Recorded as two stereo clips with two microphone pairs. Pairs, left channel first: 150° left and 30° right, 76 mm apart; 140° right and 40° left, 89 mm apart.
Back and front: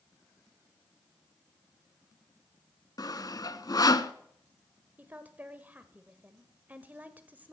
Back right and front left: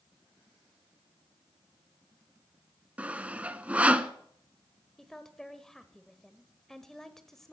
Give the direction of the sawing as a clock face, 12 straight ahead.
8 o'clock.